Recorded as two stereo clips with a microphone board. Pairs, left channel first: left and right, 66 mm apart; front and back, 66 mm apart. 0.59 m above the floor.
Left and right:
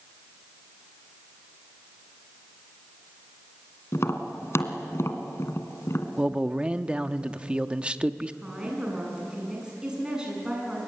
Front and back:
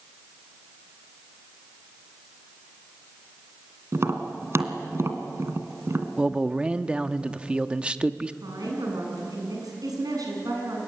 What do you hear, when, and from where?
3.9 s tapping: 135° left, 2 m
6.2 s a man speaking: 135° right, 0.8 m
8.4 s a woman speaking: 165° right, 7.5 m